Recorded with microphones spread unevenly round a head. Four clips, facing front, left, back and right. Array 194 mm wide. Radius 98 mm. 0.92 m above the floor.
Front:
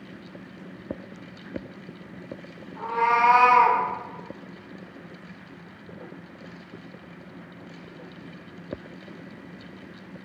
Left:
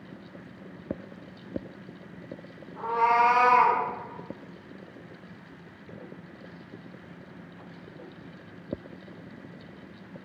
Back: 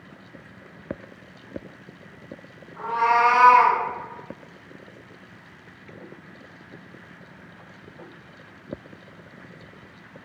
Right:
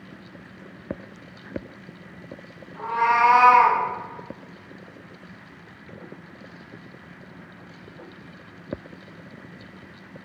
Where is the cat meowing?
105° left, 1.4 m; by 3.8 s 125° left, 1.4 m.